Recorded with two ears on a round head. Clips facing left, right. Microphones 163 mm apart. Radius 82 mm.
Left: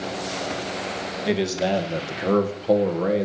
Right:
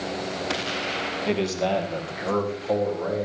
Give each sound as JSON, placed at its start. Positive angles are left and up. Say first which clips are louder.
{"t": 1.3, "sound": "a man speaking", "louder": "left 2 dB", "side_deg": 10, "distance_m": 2.5}